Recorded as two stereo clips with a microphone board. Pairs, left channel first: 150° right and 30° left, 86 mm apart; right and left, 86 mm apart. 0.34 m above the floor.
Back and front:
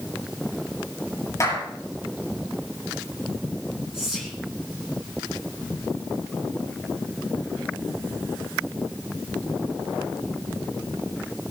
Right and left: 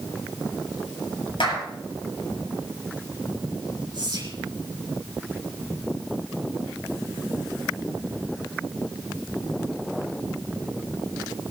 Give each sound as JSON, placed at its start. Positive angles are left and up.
{"t": 1.4, "sound": "a clap", "azimuth_deg": -95, "distance_m": 7.5}
{"t": 3.9, "sound": "whispering", "azimuth_deg": 115, "distance_m": 3.0}